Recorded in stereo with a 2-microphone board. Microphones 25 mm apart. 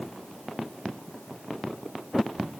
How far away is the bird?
I don't hear a bird.